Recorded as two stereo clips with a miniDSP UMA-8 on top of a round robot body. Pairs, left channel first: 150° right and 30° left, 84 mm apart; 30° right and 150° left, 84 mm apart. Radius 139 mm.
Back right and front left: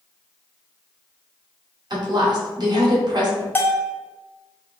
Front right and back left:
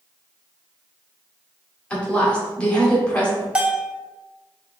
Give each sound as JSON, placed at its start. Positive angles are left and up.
{"t": 1.9, "sound": "a woman speaking", "azimuth_deg": 45, "distance_m": 1.9}
{"t": 3.5, "sound": "a bell", "azimuth_deg": -150, "distance_m": 0.9}